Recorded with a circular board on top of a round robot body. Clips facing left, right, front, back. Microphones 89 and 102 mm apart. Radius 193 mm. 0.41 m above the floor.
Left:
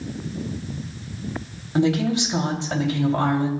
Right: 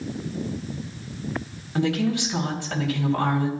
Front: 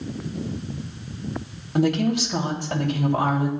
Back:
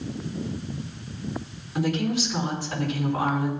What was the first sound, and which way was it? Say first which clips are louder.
A woman speaking: left 3 dB, front 4 dB; 25° left.